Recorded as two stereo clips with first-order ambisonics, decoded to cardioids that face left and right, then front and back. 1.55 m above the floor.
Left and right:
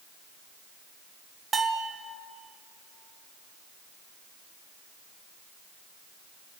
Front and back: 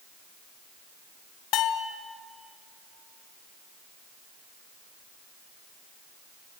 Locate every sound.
1.5 s a bell: 25° right, 0.6 m